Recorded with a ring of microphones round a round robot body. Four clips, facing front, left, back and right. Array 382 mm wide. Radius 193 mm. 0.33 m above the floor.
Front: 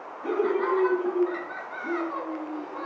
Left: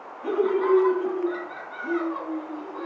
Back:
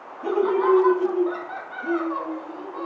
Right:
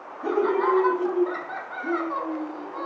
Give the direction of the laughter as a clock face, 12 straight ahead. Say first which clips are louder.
Right 1 dB, back 4 dB; 5 o'clock.